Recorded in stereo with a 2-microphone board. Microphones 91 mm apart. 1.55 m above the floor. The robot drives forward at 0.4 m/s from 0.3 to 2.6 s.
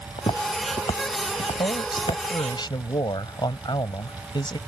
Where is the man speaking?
55° left (ahead or behind).